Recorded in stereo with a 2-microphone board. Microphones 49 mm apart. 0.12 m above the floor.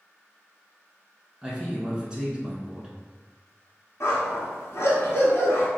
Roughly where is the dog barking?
Left.